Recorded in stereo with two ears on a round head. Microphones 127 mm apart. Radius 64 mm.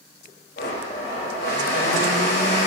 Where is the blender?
70° left (ahead or behind), 3.5 m.